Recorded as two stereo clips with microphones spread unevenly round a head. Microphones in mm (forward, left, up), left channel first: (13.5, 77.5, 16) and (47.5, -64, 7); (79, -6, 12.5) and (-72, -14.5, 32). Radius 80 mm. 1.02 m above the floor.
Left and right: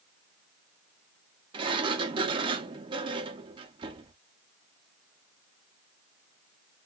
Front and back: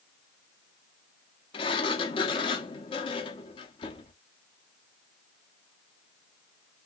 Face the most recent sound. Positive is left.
turn(degrees=-45)